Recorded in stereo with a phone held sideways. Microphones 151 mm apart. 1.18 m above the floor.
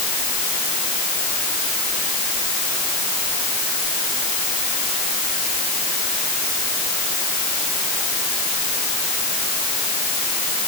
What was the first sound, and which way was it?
Only background noise.